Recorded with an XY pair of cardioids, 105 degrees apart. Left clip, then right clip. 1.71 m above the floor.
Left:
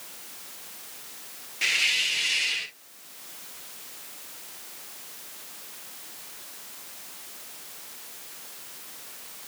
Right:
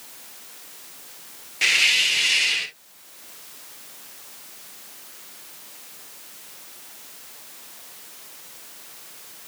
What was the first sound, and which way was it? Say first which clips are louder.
A hiss: right 6 dB; 40° right.